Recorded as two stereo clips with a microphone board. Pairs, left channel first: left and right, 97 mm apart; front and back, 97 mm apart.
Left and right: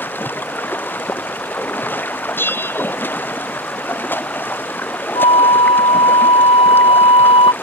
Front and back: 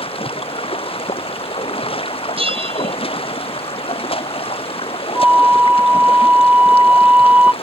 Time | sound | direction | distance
0.0 | running water | 20° left | ?
2.4 | a bell | 160° left | ?
5.2 | a flute | 105° left | ?